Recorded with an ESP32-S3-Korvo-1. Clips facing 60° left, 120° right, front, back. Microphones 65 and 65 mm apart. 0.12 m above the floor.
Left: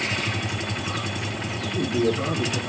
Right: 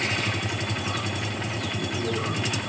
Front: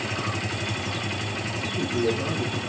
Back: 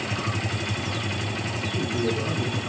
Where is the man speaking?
90° left, 4 m.